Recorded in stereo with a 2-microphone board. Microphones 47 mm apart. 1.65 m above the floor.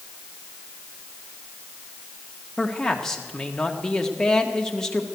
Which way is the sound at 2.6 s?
15° left (ahead or behind).